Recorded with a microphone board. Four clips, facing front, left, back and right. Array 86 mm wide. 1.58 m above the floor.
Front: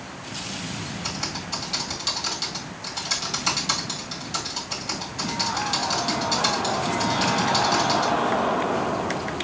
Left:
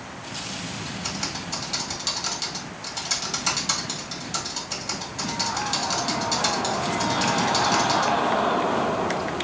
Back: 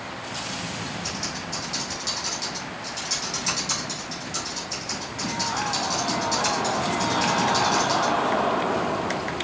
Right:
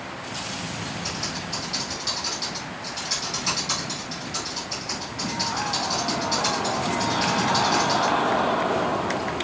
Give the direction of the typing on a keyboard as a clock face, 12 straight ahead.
10 o'clock.